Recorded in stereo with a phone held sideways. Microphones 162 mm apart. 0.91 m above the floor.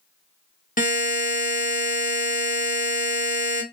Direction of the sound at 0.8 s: 60° left (ahead or behind).